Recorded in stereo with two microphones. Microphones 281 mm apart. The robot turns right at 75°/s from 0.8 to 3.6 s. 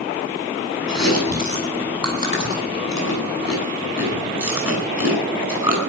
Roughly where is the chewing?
Right.